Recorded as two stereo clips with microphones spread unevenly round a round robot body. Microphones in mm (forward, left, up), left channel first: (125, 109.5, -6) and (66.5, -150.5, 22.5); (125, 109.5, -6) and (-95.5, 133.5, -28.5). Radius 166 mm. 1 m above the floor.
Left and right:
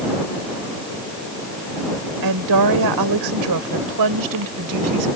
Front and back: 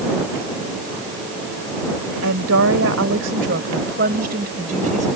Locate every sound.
2.2 s a woman speaking: 140° right; by 5.1 s 115° right